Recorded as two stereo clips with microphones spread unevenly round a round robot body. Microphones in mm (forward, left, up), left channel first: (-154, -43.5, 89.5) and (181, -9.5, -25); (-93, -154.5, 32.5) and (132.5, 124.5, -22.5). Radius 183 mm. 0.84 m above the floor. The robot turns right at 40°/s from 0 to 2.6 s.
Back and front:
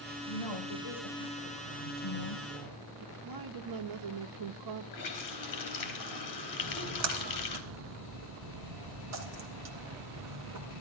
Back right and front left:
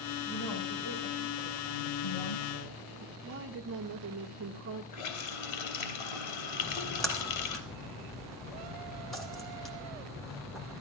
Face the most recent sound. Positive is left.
turn(degrees=-40)